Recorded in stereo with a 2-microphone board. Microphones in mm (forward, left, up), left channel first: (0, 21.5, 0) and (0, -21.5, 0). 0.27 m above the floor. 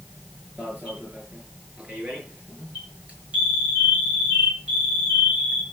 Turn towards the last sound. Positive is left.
turn(degrees=-30)  # may be behind; listen again after turning